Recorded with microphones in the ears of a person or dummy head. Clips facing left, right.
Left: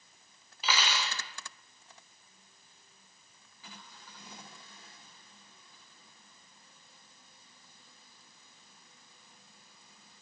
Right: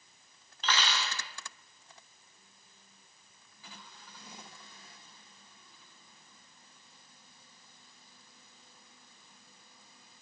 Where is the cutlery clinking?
5° left (ahead or behind), 0.7 m.